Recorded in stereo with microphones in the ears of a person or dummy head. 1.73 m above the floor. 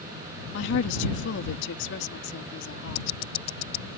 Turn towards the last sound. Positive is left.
turn(degrees=20)  # may be behind; listen again after turning